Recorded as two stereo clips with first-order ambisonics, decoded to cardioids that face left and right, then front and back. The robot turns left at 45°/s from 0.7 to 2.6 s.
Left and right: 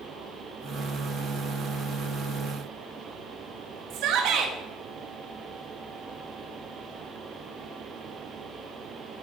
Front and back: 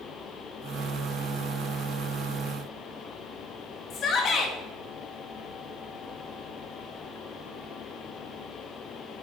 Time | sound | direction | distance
3.9 | a shout | 55° right | 0.9 m